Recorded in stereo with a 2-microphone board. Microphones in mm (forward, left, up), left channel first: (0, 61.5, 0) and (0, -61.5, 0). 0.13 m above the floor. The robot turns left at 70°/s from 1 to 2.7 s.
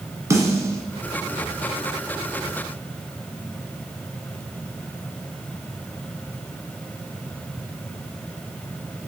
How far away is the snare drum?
About 1.2 m.